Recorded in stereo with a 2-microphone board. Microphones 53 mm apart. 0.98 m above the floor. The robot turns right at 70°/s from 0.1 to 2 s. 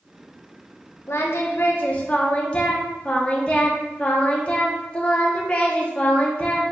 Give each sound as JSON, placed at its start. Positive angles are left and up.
{"t": 1.1, "sound": "singing", "azimuth_deg": 90, "distance_m": 0.6}